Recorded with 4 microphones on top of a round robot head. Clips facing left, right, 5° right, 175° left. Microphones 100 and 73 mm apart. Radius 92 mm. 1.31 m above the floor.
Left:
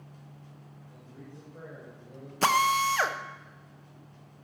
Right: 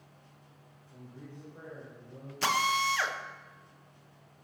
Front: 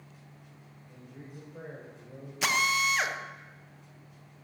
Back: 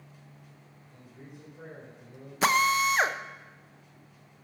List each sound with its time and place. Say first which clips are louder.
0.9 s a man speaking: right 1 dB, front 2 dB; 20° left, 6.5 m
2.4 s a drill: left 5 dB, back 4 dB; 130° left, 0.9 m